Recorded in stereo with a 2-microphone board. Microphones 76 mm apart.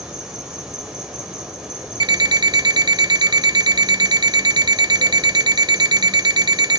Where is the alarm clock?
70° right (ahead or behind), 0.5 m.